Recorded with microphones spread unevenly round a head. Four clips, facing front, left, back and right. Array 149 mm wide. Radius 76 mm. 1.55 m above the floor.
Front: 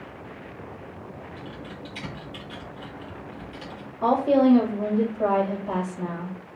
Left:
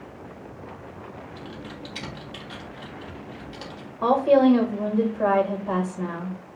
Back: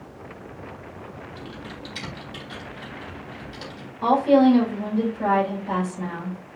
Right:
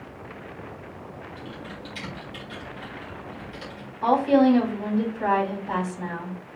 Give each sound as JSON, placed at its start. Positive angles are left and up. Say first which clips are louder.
{"t": 1.4, "sound": "typing on a keyboard", "louder": "even, back 1 dB", "azimuth_deg": 110, "distance_m": 3.0}
{"t": 4.0, "sound": "a woman speaking", "louder": "left 1 dB, back 3 dB", "azimuth_deg": 85, "distance_m": 5.5}